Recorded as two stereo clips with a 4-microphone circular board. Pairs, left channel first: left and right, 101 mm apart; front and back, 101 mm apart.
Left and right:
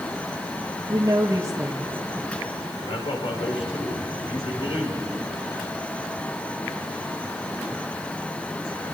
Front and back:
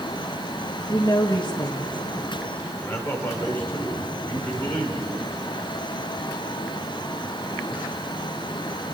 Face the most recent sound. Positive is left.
turn(degrees=65)